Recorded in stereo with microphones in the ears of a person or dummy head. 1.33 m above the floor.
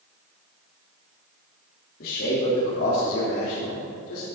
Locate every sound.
2.0 s a man speaking: 55° left (ahead or behind), 3 m; by 4.3 s 70° left (ahead or behind), 3.5 m